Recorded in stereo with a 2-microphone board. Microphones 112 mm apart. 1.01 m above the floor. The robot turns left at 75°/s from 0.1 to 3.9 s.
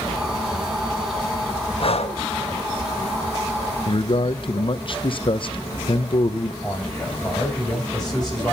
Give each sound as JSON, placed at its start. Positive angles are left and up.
{"t": 1.8, "sound": "breathing", "side_deg": 50, "distance_m": 1.2}
{"t": 3.9, "sound": "a man speaking", "side_deg": 50, "distance_m": 0.7}
{"t": 6.6, "sound": "a man speaking", "side_deg": 5, "distance_m": 7.0}